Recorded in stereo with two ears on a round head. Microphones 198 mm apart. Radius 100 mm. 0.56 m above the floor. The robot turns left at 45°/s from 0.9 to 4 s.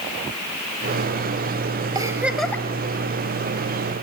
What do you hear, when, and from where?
1.9 s a giggle: 160° right, 1.7 m; by 2.6 s 170° left, 1.7 m